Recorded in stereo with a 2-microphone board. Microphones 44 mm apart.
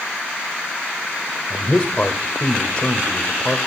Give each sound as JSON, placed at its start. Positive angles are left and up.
{"t": 1.5, "sound": "a man speaking", "side_deg": 20, "distance_m": 1.3}